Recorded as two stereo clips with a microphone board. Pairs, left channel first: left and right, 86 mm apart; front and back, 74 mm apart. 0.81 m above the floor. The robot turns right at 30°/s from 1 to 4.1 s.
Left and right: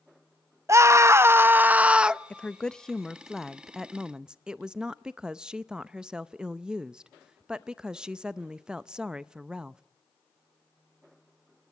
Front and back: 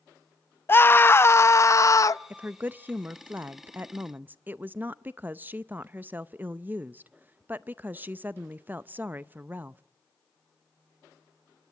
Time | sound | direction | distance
0.7 | a scream | 50° right | 0.6 m
2.3 | a woman speaking | 145° left | 0.5 m